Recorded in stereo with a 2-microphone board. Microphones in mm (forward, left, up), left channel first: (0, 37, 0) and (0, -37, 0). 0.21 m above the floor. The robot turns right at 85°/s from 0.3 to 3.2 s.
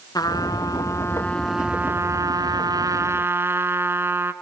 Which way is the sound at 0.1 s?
80° left.